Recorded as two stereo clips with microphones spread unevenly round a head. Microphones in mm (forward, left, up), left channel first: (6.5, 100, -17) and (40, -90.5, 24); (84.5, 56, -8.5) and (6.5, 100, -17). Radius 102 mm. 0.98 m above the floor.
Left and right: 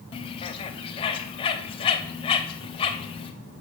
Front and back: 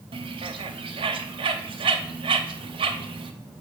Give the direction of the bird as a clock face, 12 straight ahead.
6 o'clock.